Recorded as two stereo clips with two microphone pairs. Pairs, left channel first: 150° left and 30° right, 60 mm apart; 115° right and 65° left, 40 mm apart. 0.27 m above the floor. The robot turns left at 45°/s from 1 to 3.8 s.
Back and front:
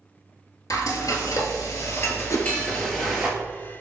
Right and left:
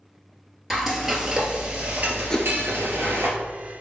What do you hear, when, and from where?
0.7 s frying: 150° left, 0.9 m; by 3.3 s 45° left, 0.9 m
2.3 s a whoosh: 175° left, 0.7 m; by 2.5 s 165° left, 0.7 m